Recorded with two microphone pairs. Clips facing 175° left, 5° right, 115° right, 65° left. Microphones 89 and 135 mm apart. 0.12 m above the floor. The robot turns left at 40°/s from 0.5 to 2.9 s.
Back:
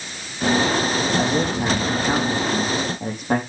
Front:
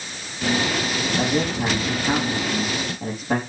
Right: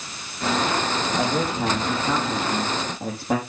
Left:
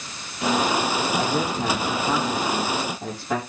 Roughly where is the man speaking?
Right.